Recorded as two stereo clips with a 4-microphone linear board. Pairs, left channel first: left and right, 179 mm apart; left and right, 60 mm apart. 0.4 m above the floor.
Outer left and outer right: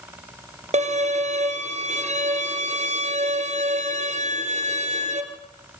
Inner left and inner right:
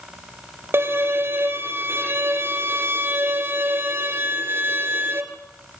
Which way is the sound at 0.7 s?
45° right (ahead or behind).